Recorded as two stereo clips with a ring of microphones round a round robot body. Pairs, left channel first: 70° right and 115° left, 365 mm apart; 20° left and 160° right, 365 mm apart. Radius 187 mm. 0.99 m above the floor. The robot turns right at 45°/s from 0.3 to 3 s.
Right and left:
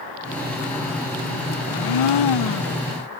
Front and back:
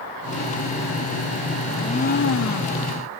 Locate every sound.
1.7 s a blender: 65° right, 0.6 m; by 2.9 s 10° right, 0.6 m